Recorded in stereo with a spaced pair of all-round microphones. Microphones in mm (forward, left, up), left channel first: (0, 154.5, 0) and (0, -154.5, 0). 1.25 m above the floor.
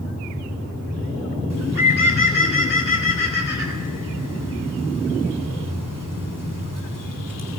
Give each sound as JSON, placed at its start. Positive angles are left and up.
{"t": 1.5, "sound": "a bird", "side_deg": 85, "distance_m": 3.5}